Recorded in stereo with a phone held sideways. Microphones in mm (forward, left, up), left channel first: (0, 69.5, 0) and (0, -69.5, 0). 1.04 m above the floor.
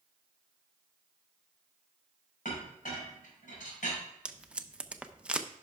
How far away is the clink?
About 4 m.